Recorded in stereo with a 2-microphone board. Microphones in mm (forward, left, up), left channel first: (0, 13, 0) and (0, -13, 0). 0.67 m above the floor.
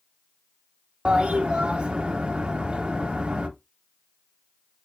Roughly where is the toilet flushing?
Right.